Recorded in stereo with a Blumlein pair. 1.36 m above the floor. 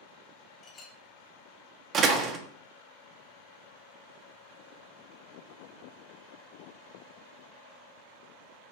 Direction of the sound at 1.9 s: 30° right.